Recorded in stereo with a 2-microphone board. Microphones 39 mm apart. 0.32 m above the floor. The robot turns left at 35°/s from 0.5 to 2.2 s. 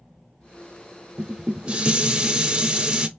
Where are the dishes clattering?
20° right (ahead or behind), 0.7 m.